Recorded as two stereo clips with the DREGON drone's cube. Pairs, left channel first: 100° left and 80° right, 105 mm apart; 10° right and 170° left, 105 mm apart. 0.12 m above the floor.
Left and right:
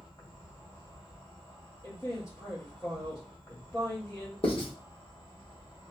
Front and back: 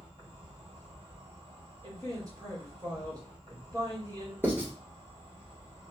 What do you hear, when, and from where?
0.0 s an insect: 140° left, 2.5 m
1.8 s a man speaking: 145° left, 1.7 m
4.4 s writing: 100° left, 1.4 m